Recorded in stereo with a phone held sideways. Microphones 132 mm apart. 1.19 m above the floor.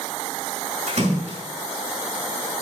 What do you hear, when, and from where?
0.9 s a splash: 60° right (ahead or behind), 5 m